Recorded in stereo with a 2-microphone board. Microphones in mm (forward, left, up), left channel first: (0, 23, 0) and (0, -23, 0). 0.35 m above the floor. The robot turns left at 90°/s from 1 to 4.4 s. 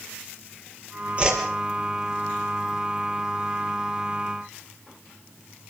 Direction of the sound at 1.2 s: 25° right (ahead or behind).